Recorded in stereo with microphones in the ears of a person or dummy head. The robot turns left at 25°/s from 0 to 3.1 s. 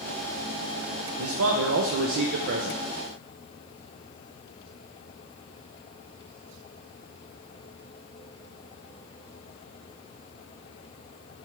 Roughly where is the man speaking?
Right.